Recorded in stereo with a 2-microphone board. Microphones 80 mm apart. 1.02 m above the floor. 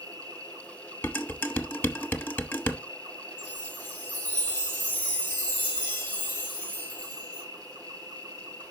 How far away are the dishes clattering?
About 0.9 m.